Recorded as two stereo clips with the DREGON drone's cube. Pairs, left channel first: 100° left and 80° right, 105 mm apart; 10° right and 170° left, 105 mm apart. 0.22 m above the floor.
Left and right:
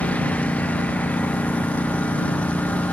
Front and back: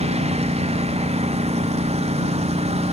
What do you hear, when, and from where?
0.0 s a lawn mower: straight behind